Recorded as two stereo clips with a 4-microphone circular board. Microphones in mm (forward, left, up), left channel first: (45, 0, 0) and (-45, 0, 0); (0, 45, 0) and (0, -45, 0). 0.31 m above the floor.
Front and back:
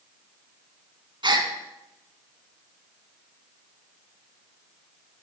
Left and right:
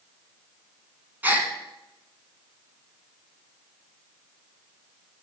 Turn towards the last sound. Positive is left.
turn(degrees=-160)